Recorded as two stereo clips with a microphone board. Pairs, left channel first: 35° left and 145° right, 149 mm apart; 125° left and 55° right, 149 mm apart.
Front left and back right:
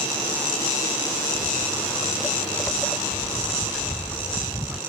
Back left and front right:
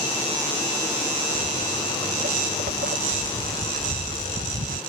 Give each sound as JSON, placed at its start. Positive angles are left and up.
{"t": 1.4, "sound": "footsteps", "azimuth_deg": -35}